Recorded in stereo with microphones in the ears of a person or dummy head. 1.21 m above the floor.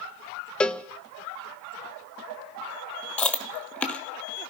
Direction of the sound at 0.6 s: 5° left (ahead or behind).